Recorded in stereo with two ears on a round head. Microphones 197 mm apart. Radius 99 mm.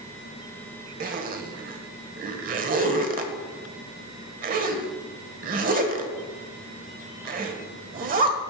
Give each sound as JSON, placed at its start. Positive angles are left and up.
{"t": 1.0, "sound": "a zipper", "side_deg": -40, "distance_m": 1.0}